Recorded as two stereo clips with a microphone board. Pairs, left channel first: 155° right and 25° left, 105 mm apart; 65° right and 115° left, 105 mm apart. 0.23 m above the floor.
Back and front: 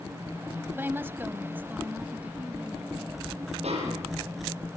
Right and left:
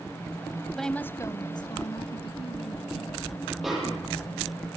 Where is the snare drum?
25° left, 8 m.